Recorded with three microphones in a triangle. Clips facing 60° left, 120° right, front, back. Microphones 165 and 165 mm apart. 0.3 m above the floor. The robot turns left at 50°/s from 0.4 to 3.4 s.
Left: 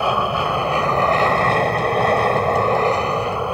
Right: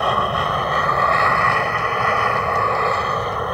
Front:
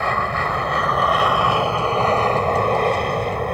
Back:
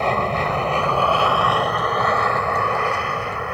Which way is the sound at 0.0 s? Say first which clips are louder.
Left 1 dB, back 2 dB; 140° left.